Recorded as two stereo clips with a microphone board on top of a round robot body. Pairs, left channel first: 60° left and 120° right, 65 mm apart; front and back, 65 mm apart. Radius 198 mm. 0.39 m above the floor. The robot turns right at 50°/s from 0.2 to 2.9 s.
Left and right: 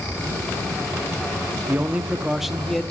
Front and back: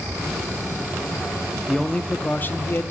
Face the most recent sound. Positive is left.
turn(degrees=-15)